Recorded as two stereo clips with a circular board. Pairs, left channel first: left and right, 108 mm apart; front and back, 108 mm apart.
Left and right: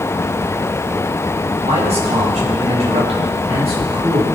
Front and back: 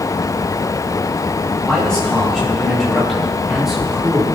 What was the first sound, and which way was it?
A man speaking, 85° right.